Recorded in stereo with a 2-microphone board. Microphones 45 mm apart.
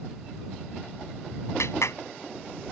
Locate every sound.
1.6 s a clap: 90° left